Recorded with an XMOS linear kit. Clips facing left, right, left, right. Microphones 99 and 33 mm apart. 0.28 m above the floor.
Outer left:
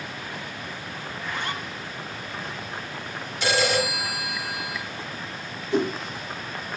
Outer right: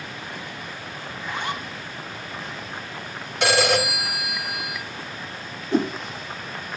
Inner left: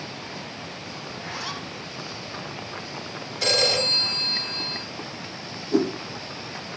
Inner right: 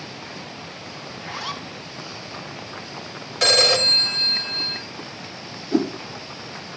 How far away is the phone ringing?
About 3 m.